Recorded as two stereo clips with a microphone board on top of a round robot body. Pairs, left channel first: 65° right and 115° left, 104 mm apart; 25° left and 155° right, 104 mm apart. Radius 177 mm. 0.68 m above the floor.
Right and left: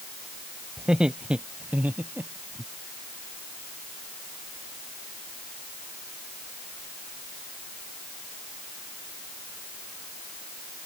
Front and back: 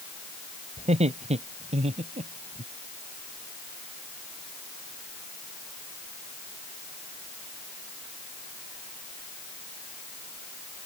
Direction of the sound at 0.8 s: 165° right.